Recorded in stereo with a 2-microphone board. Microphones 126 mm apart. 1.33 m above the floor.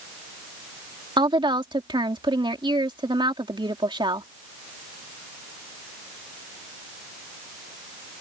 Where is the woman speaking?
40° right (ahead or behind).